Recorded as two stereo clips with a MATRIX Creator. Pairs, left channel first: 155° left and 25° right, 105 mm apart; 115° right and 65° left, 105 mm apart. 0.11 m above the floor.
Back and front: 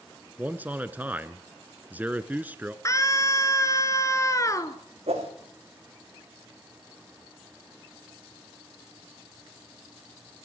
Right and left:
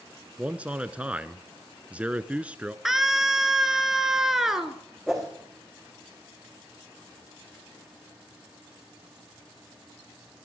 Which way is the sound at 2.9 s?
150° left.